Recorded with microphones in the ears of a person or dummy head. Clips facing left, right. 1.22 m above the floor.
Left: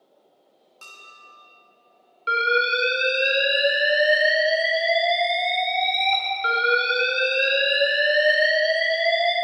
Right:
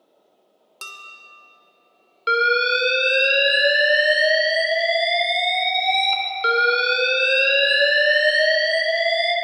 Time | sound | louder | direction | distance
0.8 | dishes clattering | right 6 dB | 65° right (ahead or behind) | 1.3 m
2.3 | an alarm | right 3 dB | 65° right (ahead or behind) | 2.5 m